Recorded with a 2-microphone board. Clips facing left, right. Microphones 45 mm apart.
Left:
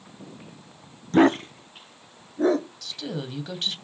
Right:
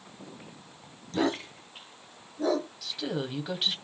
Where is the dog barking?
50° left (ahead or behind), 0.6 m; by 2.7 s 40° left (ahead or behind), 1.8 m.